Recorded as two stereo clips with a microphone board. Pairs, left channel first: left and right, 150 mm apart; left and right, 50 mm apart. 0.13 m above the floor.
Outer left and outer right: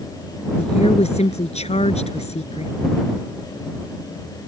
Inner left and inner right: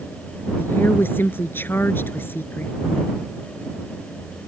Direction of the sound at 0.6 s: 45° left (ahead or behind).